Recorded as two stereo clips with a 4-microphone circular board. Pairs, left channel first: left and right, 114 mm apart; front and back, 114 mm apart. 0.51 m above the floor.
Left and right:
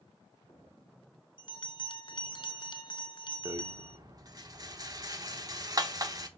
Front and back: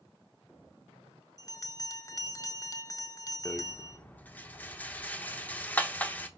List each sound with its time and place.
1.4 s a bell: 55° left, 0.7 m
3.5 s a rattle: 65° right, 0.8 m